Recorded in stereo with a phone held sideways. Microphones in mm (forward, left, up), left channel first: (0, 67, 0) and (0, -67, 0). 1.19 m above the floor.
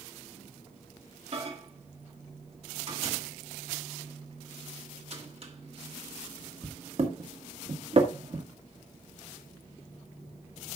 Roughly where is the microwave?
Right.